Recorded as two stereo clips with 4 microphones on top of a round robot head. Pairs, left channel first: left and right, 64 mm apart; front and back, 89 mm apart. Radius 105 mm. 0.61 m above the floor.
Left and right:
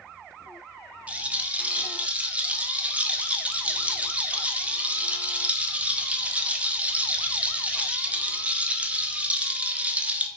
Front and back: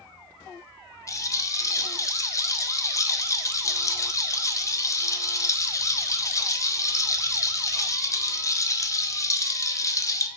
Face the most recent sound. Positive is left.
turn(degrees=-30)